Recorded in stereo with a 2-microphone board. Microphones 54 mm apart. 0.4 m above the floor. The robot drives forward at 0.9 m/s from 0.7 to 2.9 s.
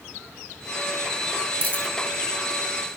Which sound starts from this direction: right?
A dropped coin, at 1.6 s.